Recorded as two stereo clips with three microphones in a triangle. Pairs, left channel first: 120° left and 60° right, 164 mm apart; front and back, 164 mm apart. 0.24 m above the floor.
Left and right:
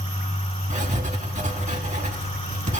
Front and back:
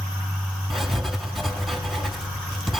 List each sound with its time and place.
0.7 s writing: 90° right, 1.4 m